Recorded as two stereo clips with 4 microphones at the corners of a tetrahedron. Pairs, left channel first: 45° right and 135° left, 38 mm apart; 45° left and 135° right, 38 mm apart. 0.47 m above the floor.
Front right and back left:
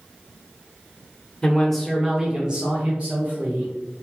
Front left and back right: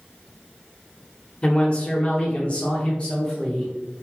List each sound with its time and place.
1.4 s a man speaking: 5° left, 0.8 m; by 4.0 s 105° left, 1.4 m